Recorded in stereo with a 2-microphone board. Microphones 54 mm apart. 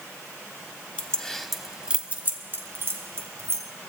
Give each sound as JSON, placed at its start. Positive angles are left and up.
{"t": 1.0, "sound": "keys jangling", "side_deg": 20, "distance_m": 1.0}